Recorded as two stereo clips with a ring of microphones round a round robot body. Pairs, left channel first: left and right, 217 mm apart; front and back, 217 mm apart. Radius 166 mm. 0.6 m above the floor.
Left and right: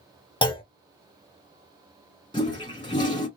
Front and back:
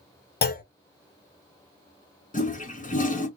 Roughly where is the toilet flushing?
Ahead left.